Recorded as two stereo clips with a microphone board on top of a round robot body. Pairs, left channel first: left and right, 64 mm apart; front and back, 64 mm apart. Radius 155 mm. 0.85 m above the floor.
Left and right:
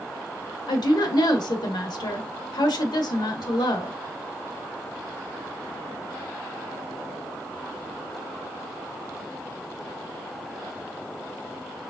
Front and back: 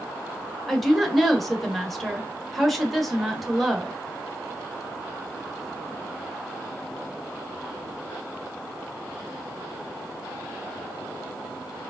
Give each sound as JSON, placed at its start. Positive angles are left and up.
{"t": 0.7, "sound": "a woman speaking", "azimuth_deg": 90, "distance_m": 1.2}